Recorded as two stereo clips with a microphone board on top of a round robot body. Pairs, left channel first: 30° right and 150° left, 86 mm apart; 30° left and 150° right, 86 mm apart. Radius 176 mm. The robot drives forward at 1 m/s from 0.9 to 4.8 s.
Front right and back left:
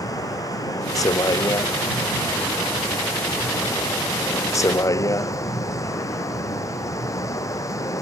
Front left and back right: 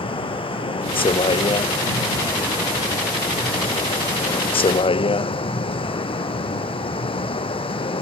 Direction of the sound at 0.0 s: 20° left.